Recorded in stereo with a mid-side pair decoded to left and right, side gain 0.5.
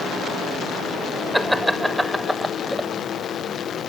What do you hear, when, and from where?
1.3 s laughter: 5° right; by 2.9 s 5° left